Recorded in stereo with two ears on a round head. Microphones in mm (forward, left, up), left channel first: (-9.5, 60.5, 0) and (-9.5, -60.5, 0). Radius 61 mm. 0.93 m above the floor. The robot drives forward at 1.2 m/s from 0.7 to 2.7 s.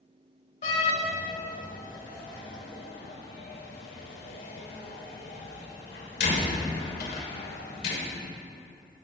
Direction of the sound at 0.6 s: 50° left (ahead or behind).